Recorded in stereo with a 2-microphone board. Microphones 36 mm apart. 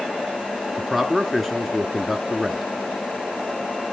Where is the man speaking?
Centre (ahead or behind), 1.1 m.